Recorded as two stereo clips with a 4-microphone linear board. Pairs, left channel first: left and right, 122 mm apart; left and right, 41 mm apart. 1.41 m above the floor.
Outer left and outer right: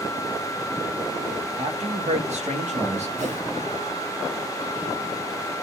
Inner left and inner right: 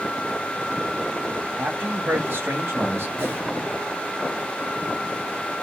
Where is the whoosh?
80° right, 5 m.